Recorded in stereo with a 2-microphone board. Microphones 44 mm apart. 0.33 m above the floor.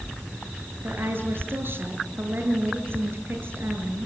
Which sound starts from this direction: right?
A woman speaking, at 0.8 s.